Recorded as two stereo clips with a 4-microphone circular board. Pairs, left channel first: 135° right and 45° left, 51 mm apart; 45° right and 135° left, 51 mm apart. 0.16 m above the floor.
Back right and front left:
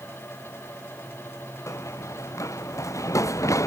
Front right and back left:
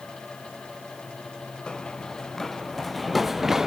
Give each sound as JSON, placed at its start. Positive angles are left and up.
{"t": 1.7, "sound": "running footsteps", "azimuth_deg": -120}